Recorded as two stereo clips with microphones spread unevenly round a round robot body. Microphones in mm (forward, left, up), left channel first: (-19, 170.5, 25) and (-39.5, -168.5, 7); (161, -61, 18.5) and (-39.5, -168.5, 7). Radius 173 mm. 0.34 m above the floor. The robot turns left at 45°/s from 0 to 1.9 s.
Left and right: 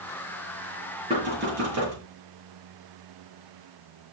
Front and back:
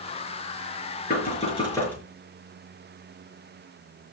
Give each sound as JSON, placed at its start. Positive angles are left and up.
{"t": 1.1, "sound": "knocking", "azimuth_deg": -20, "distance_m": 5.5}